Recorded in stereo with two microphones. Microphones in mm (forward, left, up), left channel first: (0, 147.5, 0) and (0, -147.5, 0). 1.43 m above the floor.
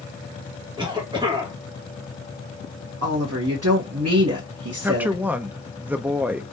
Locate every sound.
0.8 s a cough: 15° right (ahead or behind), 1.8 m
3.0 s a woman speaking: 55° right (ahead or behind), 1.4 m
4.8 s a woman speaking: 5° right (ahead or behind), 0.6 m